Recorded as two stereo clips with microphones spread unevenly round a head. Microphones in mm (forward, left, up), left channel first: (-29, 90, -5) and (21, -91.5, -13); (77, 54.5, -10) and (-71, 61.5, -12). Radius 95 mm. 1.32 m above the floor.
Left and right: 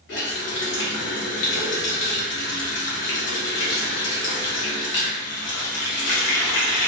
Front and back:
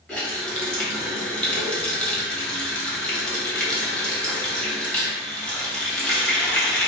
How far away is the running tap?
About 1.1 m.